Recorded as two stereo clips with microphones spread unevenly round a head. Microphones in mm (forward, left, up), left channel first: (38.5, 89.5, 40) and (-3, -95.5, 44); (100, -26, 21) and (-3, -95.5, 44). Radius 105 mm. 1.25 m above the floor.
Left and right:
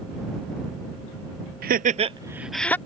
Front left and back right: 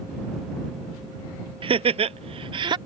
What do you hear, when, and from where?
1.6 s laughter: 100° right; by 2.8 s 155° left